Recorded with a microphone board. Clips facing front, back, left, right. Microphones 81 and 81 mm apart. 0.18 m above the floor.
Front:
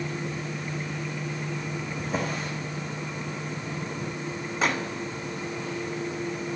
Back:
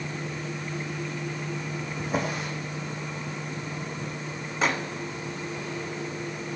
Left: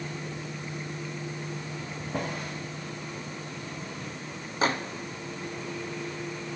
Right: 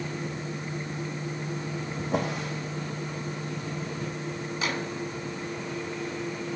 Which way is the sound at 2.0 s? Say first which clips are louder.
Back 2 dB, right 4 dB; 95° right.